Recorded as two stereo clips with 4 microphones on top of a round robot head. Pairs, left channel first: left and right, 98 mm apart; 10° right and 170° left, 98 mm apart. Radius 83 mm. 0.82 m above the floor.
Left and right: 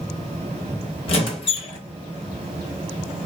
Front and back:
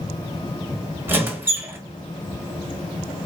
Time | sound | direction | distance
1.1 | a squeak | 105° left | 0.9 m